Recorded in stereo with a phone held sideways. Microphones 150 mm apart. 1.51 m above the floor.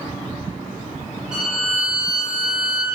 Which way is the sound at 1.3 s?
5° right (ahead or behind).